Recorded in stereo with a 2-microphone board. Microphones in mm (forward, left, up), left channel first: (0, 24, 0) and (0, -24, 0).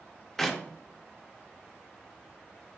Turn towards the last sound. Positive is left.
turn(degrees=10)  # may be behind; listen again after turning